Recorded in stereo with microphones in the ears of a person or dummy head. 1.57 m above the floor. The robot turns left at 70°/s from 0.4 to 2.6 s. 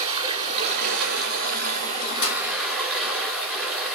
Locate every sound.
0.0 s running water: 35° right, 2.5 m; by 4.0 s 170° left, 2.5 m
2.2 s a clap: 70° left (ahead or behind), 2 m; by 2.4 s 75° left (ahead or behind), 2 m